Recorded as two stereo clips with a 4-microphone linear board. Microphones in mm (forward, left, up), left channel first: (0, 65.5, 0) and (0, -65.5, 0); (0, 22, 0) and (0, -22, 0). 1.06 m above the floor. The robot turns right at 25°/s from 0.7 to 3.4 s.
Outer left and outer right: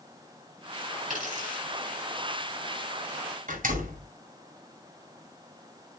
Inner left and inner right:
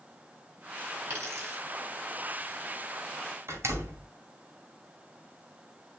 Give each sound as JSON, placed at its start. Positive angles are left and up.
{"t": 1.1, "sound": "a dropped coin", "side_deg": -70, "distance_m": 6.0}
{"t": 3.5, "sound": "a door slam", "side_deg": -85, "distance_m": 2.5}